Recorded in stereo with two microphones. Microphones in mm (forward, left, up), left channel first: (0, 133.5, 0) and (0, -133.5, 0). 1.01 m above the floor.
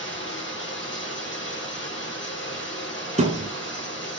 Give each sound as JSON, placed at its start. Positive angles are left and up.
{"t": 0.0, "sound": "running water", "side_deg": 45, "distance_m": 1.6}
{"t": 3.2, "sound": "a thud", "side_deg": -25, "distance_m": 1.0}